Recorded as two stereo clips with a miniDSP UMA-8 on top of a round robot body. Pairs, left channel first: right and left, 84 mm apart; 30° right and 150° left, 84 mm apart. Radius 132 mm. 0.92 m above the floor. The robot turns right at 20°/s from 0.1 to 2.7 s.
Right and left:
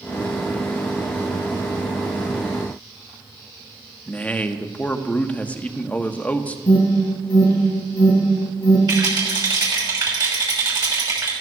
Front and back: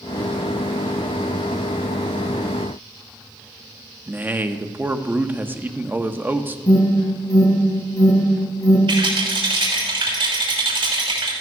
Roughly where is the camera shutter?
I don't hear a camera shutter.